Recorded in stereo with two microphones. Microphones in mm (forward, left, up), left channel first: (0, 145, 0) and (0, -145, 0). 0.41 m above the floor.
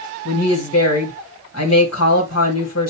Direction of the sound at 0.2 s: 60° left (ahead or behind).